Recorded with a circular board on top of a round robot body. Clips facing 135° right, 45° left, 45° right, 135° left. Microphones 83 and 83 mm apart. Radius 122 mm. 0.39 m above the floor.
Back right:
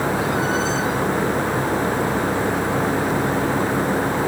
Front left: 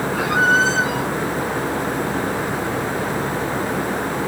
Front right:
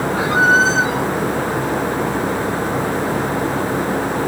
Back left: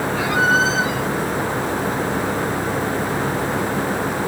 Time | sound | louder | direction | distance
0.1 | a squeak | front left 4 dB, front right 4 dB | 15° left | ?